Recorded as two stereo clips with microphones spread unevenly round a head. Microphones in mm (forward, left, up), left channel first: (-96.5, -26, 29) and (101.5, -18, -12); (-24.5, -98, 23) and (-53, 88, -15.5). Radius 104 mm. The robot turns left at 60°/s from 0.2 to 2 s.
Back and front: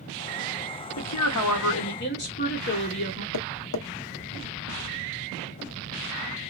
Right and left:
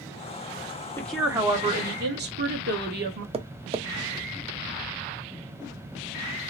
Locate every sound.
1.0 s a woman speaking: 160° right, 1.1 m; by 3.2 s 140° left, 1.1 m
3.3 s tapping: 160° left, 0.6 m